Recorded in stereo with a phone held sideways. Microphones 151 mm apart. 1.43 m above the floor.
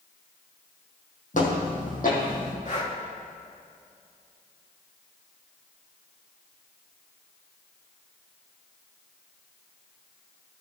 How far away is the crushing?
I don't hear crushing.